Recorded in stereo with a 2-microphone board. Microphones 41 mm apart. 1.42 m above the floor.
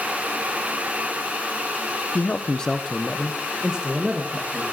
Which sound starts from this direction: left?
A man speaking, at 2.1 s.